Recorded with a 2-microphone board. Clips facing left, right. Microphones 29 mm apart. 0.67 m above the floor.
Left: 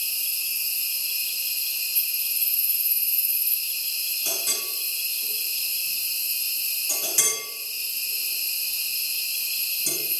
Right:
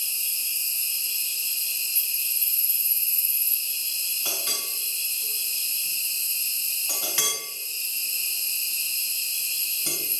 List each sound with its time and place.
0.0 s an insect: 15° left (ahead or behind), 2.5 m
4.2 s a clink: 35° right (ahead or behind), 4.5 m